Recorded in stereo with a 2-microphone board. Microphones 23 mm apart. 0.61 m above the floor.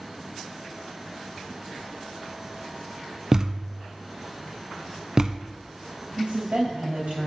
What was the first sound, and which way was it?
A thud, 30° right (ahead or behind).